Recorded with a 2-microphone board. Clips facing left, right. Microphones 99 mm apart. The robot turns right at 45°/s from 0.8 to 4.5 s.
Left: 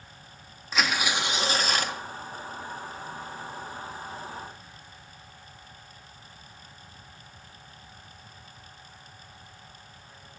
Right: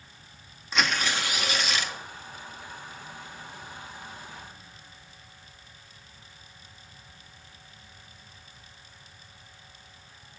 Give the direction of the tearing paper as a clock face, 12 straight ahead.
12 o'clock.